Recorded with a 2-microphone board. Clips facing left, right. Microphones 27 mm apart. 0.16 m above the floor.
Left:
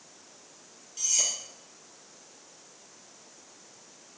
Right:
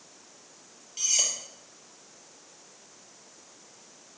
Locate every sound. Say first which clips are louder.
1.0 s cutlery clinking: right 2 dB; 25° right (ahead or behind), 2 m